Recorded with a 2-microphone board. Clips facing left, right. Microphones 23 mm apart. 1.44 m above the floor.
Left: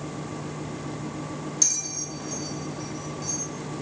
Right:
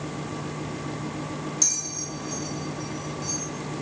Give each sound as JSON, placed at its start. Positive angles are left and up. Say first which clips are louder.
{"t": 1.6, "sound": "a bell", "louder": "left 1 dB", "side_deg": 15, "distance_m": 0.8}